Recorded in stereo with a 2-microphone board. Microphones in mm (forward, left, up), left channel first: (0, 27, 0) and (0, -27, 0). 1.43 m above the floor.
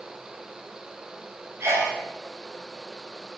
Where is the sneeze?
55° right (ahead or behind), 6.5 m.